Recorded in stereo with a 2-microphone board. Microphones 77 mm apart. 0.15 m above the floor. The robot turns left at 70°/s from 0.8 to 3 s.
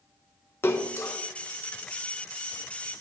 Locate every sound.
0.6 s a splash: 30° left (ahead or behind), 1.0 m; by 1.2 s 45° left (ahead or behind), 1.0 m